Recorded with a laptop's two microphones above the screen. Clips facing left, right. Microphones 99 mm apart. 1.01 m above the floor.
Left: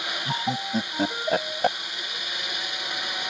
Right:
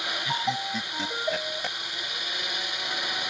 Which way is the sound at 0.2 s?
40° left (ahead or behind).